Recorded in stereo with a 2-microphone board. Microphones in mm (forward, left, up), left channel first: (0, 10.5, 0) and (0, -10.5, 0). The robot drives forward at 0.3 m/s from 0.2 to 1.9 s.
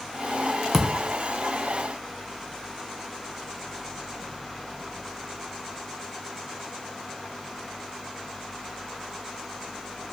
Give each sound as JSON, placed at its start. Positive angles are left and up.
{"t": 0.7, "sound": "a thud", "side_deg": -20, "distance_m": 0.6}